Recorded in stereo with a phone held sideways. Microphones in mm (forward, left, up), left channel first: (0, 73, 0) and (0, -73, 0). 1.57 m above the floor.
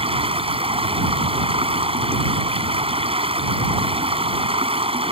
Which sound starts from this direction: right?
Running water, at 0.0 s.